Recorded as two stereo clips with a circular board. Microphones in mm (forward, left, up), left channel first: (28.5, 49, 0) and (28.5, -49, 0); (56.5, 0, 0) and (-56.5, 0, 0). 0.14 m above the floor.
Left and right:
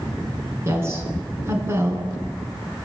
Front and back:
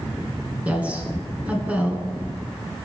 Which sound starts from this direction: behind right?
A woman speaking, at 0.7 s.